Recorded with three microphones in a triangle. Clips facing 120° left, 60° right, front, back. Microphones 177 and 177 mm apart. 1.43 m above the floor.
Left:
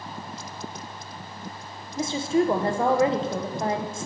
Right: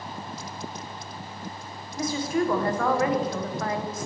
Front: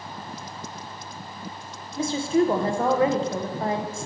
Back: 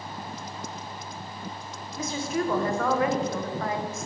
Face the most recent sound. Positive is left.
turn(degrees=55)